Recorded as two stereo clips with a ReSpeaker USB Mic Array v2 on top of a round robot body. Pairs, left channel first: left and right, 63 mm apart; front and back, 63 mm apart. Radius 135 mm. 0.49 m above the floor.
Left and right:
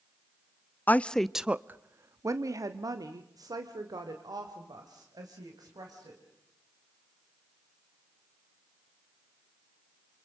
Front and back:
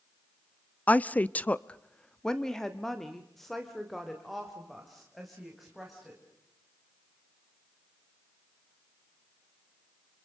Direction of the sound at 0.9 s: 50° left.